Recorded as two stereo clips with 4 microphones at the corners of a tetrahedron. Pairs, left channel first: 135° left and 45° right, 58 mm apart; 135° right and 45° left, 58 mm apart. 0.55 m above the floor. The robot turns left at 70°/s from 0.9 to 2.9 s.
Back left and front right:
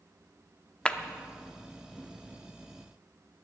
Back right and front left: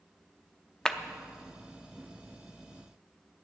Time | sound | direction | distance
0.8 | a clap | 165° left | 0.6 m